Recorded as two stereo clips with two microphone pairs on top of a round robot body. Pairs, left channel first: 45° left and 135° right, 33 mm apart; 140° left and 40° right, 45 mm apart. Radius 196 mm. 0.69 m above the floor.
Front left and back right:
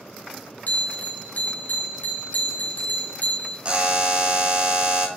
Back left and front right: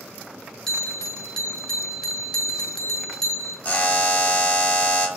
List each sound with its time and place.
0.7 s a bell: 65° left, 1.8 m
3.6 s a buzzer: straight behind, 1.4 m